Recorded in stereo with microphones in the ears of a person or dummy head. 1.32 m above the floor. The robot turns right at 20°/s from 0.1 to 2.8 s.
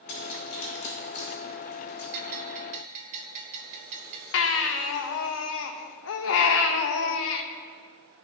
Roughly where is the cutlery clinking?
Left.